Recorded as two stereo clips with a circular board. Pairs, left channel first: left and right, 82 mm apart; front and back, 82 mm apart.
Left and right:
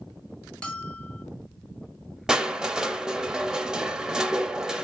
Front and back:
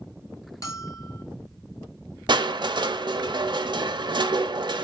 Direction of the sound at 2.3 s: 170° right.